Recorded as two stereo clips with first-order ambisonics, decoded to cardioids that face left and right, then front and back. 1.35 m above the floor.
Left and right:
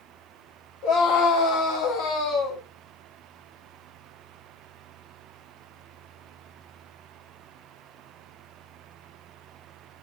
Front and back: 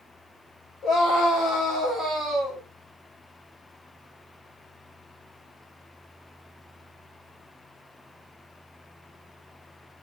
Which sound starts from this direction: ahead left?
A scream, at 0.8 s.